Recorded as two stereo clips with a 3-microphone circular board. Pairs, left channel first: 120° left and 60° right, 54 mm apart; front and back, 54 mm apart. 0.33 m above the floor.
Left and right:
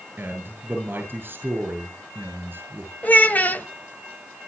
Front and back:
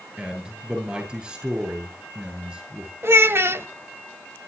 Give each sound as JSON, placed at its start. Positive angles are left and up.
{"t": 0.2, "sound": "a man speaking", "azimuth_deg": -110, "distance_m": 8.0}
{"t": 3.0, "sound": "a child speaking", "azimuth_deg": 170, "distance_m": 1.4}